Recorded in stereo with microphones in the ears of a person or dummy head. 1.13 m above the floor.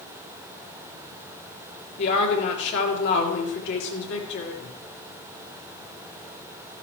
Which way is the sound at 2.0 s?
65° left (ahead or behind).